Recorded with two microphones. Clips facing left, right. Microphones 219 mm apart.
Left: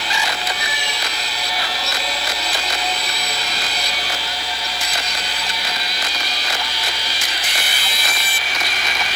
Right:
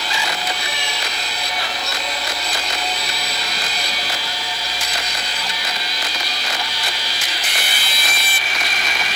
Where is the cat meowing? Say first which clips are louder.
Even; 5° left (ahead or behind), 7.5 m.